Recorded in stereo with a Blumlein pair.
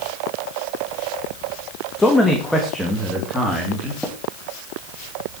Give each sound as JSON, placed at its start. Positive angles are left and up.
{"t": 2.0, "sound": "a man speaking", "azimuth_deg": 10, "distance_m": 2.0}
{"t": 4.0, "sound": "tapping", "azimuth_deg": 5, "distance_m": 2.0}